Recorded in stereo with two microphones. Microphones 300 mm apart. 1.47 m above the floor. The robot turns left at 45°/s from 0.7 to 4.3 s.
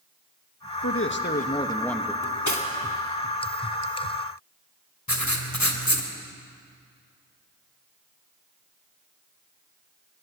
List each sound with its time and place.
0.8 s a man speaking: 55° left, 1.5 m; by 2.1 s 5° right, 1.5 m
2.2 s cutlery clinking: 80° left, 3 m; by 2.7 s 65° left (ahead or behind), 3 m
5.1 s writing: 70° left (ahead or behind), 2.5 m